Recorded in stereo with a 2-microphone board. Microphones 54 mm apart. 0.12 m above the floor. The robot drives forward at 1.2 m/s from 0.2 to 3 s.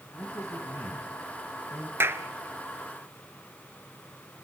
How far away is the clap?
About 1.2 m.